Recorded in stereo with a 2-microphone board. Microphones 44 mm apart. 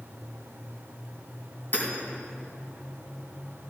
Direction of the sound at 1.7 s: 55° left (ahead or behind).